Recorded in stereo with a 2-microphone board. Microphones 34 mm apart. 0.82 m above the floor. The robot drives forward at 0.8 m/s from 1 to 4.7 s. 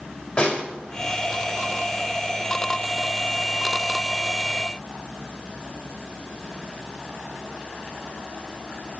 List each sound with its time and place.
0.4 s a snare drum: 25° left (ahead or behind), 2 m